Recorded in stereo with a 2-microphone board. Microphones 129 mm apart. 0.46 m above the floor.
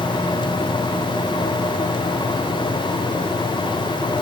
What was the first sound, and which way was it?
Only background noise.